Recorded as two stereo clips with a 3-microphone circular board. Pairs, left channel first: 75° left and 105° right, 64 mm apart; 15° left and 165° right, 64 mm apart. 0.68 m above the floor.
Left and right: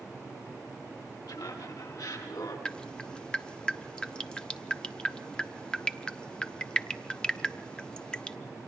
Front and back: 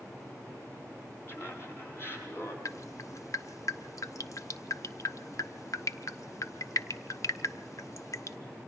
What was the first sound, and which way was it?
Laughter, 70° left.